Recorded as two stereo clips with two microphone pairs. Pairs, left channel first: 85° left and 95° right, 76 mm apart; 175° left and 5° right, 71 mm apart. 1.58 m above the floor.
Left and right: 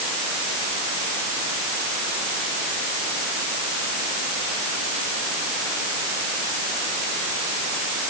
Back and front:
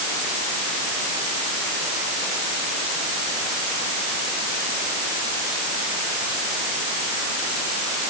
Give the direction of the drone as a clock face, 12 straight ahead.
I don't hear a drone.